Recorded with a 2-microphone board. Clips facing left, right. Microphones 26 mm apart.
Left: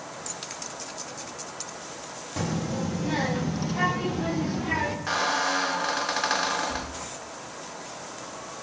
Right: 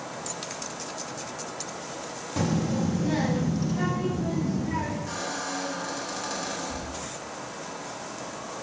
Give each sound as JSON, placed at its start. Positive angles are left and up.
{"t": 2.4, "sound": "a child speaking", "side_deg": -10, "distance_m": 1.2}
{"t": 5.1, "sound": "a squeak", "side_deg": 50, "distance_m": 0.7}